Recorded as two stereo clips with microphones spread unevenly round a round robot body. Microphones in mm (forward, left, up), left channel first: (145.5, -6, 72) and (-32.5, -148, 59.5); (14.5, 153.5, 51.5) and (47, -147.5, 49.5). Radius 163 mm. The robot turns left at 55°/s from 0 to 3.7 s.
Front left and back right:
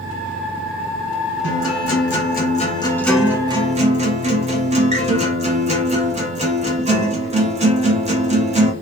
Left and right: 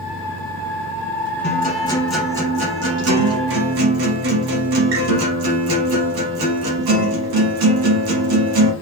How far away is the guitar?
About 1.1 m.